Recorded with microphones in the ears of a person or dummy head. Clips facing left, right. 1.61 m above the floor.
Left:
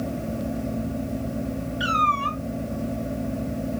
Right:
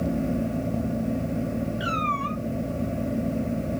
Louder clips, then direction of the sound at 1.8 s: Left 2 dB; centre (ahead or behind).